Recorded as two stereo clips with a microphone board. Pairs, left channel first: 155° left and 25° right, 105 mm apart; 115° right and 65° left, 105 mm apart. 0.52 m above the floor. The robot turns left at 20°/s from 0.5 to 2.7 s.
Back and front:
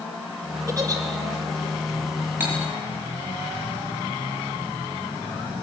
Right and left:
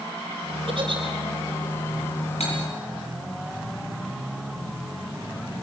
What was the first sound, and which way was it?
A giggle, 35° left.